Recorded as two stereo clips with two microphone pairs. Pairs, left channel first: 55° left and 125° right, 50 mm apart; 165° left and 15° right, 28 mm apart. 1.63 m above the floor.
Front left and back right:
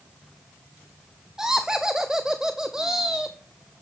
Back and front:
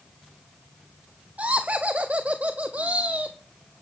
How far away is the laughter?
About 0.8 m.